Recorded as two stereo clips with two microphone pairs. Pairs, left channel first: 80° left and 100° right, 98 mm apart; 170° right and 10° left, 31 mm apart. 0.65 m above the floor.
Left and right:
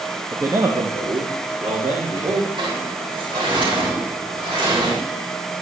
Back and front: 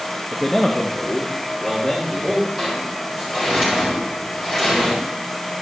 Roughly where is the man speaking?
Right.